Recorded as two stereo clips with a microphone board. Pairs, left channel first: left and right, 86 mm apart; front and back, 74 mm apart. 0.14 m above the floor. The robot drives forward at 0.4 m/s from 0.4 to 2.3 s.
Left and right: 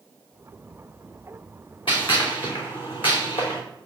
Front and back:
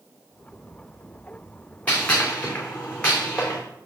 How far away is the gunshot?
About 2.5 m.